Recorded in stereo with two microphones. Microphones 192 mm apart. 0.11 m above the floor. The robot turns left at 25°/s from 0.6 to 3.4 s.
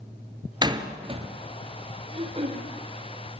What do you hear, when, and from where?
0.6 s a door slam: 25° right (ahead or behind), 1.7 m; by 1.3 s 35° right (ahead or behind), 1.7 m
2.1 s throat clearing: 30° right (ahead or behind), 4 m; by 2.7 s 40° right (ahead or behind), 4 m